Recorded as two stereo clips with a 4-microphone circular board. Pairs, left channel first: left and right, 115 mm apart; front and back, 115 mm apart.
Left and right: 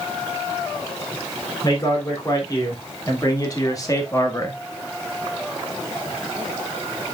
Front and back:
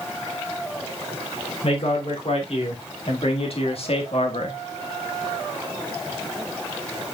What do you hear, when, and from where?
1.6 s a man speaking: 35° left, 3.5 m; by 4.6 s 30° left, 1.4 m